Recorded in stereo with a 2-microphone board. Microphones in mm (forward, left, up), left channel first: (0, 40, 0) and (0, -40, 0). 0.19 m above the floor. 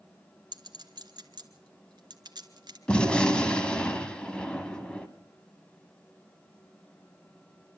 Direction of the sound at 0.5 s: 65° right (ahead or behind).